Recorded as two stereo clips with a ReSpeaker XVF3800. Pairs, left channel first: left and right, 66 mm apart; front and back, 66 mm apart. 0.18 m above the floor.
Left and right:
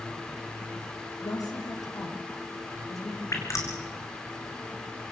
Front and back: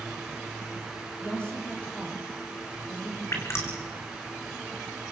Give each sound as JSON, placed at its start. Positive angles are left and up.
{"t": 1.2, "sound": "a woman speaking", "azimuth_deg": 70, "distance_m": 4.0}
{"t": 3.3, "sound": "dripping", "azimuth_deg": 45, "distance_m": 3.5}